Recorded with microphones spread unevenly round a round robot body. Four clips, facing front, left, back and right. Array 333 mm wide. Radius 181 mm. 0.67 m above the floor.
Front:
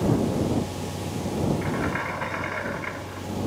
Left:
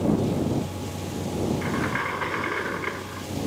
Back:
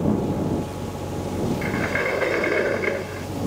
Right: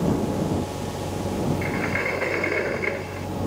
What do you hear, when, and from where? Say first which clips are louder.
1.6 s a sliding door: right 1 dB, back 3 dB; 165° right